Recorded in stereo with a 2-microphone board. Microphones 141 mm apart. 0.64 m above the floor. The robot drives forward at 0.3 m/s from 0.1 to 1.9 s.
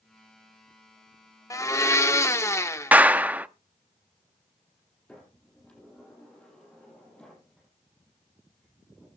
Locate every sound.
1.5 s a blender: 25° left (ahead or behind), 0.8 m; by 2.9 s 20° left (ahead or behind), 0.9 m
2.9 s a clap: 10° right (ahead or behind), 0.6 m
5.1 s a sliding door: 10° left (ahead or behind), 6 m